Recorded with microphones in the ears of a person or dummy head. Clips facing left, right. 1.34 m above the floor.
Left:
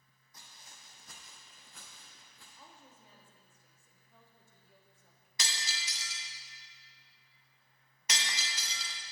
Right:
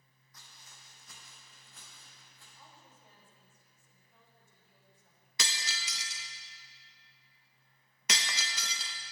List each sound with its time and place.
0.3 s footsteps: 25° left (ahead or behind), 3 m; by 2.5 s 65° left (ahead or behind), 5 m
2.6 s a woman speaking: 75° left (ahead or behind), 3 m
5.4 s breaking glass: 55° right (ahead or behind), 0.7 m